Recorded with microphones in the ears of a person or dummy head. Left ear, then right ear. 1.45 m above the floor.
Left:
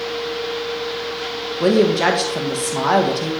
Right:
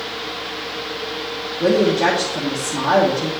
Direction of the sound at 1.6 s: 65° left (ahead or behind).